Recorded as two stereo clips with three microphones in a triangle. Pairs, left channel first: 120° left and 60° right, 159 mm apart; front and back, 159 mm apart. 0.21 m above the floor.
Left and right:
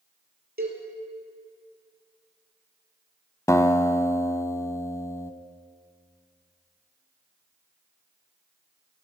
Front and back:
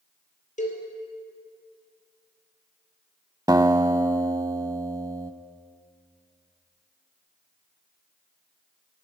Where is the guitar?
160° left, 0.5 m.